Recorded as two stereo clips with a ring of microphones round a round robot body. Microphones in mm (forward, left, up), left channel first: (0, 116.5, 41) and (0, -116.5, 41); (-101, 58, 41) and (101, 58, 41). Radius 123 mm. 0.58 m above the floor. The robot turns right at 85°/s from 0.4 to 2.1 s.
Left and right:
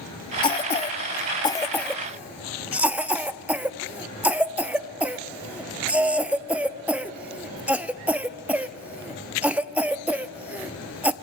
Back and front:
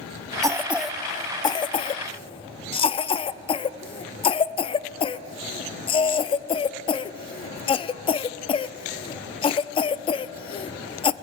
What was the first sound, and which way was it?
A cough, 50° left.